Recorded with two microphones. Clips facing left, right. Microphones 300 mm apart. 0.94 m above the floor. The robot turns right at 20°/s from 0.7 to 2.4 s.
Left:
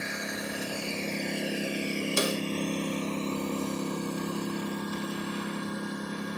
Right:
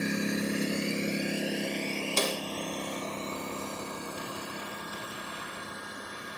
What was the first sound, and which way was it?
A lawn mower, 40° right (ahead or behind).